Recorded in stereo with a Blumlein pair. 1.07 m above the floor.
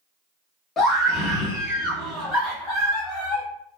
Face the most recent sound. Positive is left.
turn(degrees=20)